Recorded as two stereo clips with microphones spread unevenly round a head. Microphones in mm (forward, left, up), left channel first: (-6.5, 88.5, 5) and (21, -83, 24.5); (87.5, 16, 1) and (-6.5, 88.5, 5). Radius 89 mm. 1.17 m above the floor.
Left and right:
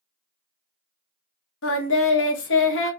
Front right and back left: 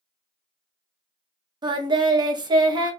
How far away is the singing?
About 0.8 m.